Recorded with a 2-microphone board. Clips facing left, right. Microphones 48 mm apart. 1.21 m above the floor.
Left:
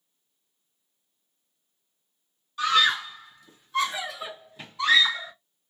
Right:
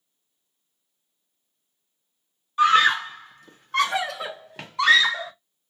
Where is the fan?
I don't hear a fan.